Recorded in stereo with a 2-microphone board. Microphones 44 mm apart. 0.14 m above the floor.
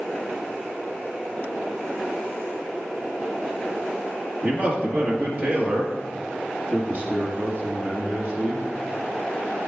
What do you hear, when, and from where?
4.4 s a man speaking: 45° right (ahead or behind), 2 m